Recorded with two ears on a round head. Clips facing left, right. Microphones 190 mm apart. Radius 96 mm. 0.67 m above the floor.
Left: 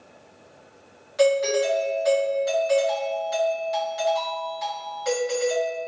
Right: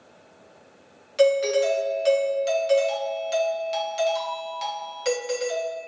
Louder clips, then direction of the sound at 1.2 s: Right 1 dB; 35° right (ahead or behind).